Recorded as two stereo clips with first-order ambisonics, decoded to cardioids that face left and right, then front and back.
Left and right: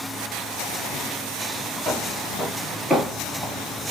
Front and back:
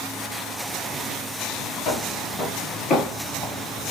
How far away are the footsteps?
About 1.4 m.